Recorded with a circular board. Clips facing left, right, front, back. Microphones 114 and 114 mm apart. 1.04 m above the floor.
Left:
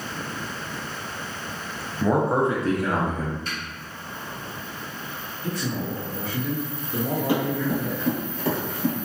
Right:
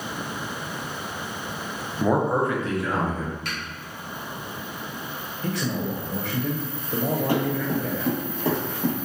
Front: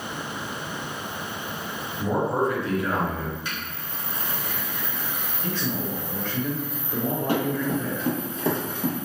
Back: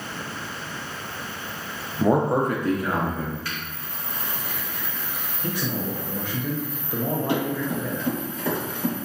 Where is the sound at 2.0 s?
160° right, 0.5 m; by 3.4 s 110° left, 1.0 m.